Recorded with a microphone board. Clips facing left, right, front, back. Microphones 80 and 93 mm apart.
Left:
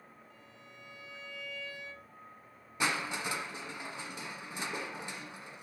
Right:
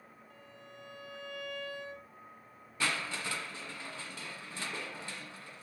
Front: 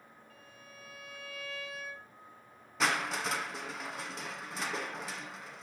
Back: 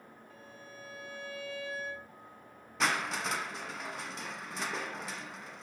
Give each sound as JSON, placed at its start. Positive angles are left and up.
{"t": 0.3, "sound": "a violin", "azimuth_deg": -120, "distance_m": 2.5}
{"t": 2.8, "sound": "crushing", "azimuth_deg": 90, "distance_m": 1.5}